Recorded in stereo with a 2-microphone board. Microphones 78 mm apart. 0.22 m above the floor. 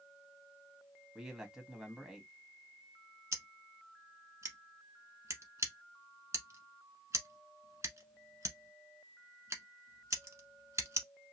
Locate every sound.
1.1 s a man speaking: 5° right (ahead or behind), 1.3 m
3.3 s scissors: 40° right (ahead or behind), 1.0 m